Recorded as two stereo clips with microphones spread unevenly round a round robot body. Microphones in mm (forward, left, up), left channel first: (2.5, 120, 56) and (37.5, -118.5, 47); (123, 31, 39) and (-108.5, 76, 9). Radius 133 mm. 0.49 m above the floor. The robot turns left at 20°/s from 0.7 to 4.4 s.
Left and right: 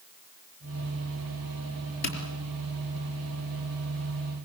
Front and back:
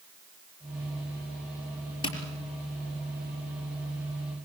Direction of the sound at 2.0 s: 60° left.